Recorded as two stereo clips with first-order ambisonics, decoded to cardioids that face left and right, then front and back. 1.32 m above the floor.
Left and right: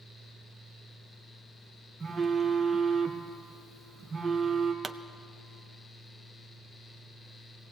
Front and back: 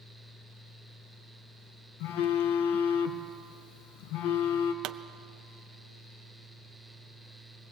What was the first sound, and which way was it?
A phone buzzing, 10° right.